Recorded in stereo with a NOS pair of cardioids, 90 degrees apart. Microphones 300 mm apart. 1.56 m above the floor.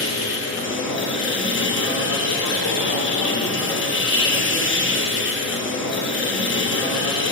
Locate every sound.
0.0 s a machine running: 40° left, 0.7 m